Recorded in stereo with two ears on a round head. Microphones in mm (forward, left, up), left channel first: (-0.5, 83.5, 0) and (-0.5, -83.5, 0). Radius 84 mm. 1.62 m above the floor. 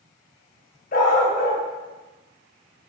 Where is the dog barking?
50° left (ahead or behind), 2 m.